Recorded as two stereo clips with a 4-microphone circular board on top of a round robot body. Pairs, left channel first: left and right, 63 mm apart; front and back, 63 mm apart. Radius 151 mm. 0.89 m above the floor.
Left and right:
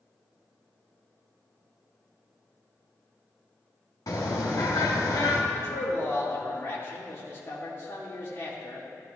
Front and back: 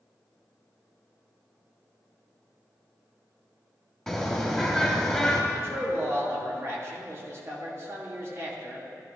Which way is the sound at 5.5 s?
135° left.